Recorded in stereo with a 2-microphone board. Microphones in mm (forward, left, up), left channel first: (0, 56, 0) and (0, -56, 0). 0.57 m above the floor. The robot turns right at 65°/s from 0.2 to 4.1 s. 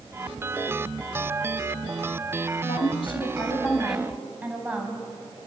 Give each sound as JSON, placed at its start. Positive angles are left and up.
{"t": 2.6, "sound": "a woman speaking", "azimuth_deg": 100, "distance_m": 4.0}